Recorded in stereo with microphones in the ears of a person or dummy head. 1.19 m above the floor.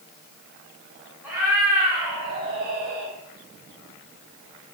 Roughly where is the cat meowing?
Centre.